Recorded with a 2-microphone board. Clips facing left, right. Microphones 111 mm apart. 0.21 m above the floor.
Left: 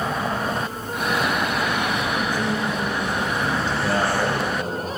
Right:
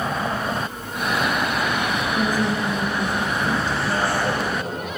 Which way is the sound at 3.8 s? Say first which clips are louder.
Left 1 dB; 70° left (ahead or behind).